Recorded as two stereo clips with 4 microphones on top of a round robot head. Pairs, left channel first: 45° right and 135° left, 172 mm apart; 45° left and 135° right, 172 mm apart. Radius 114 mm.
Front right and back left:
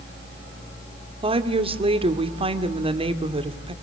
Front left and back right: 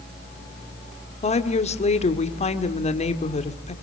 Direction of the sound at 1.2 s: 85° left.